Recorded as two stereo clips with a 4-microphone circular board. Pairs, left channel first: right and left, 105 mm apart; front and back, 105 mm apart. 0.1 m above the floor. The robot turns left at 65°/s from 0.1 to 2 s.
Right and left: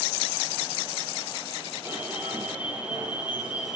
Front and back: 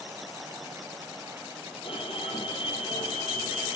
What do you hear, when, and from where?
1.9 s an alarm: 25° left, 4.5 m; by 3.8 s 15° left, 4.5 m